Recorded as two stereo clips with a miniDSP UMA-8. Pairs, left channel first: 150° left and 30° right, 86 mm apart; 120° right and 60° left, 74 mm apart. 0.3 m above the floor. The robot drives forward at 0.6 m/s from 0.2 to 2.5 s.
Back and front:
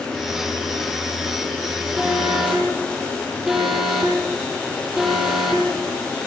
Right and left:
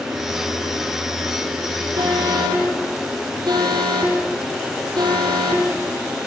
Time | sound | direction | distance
2.0 | an alarm | 50° left | 9.5 m